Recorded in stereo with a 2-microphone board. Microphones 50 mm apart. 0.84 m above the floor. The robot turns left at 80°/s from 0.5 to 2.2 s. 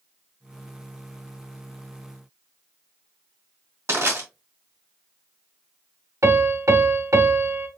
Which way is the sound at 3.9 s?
70° right (ahead or behind).